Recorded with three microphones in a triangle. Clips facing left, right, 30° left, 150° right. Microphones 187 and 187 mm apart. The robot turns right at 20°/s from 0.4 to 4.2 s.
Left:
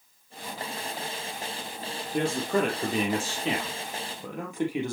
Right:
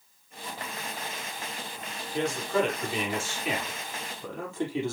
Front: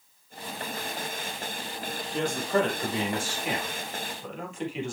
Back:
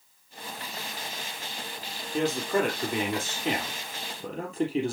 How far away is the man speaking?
About 4 m.